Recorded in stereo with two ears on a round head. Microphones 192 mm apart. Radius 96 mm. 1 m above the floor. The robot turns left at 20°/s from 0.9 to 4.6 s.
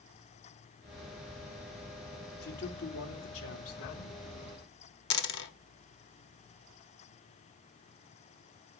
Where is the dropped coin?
55° left (ahead or behind), 1.4 m.